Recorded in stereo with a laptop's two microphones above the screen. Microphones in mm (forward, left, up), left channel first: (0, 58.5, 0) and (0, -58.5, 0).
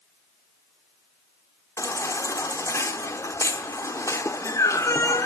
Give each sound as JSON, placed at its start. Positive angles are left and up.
{"t": 1.8, "sound": "a baby crying", "side_deg": 25, "distance_m": 1.1}